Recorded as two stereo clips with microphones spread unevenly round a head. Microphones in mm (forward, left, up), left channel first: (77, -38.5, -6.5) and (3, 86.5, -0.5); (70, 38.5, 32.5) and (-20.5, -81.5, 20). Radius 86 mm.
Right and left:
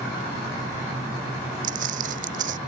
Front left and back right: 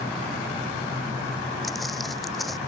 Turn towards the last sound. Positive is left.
turn(degrees=140)